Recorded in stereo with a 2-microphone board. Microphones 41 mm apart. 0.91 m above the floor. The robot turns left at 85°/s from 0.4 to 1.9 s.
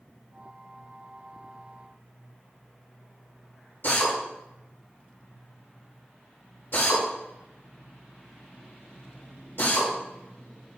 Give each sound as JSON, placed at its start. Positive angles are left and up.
{"t": 3.8, "sound": "a drill", "side_deg": 65, "distance_m": 1.7}